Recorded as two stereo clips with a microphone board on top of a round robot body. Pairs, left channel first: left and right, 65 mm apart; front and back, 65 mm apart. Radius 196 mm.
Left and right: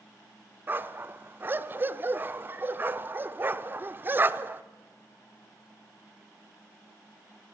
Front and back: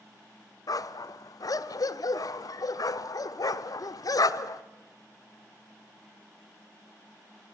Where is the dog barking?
30° right, 0.8 m.